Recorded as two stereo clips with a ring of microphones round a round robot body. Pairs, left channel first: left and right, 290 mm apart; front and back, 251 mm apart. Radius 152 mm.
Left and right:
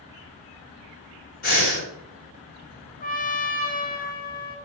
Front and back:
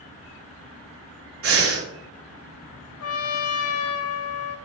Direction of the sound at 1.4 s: 150° left.